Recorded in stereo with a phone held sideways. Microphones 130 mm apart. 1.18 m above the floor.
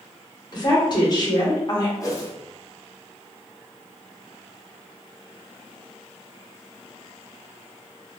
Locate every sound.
0.5 s a woman speaking: 35° left (ahead or behind), 0.9 m
2.0 s a whoosh: 30° left (ahead or behind), 0.6 m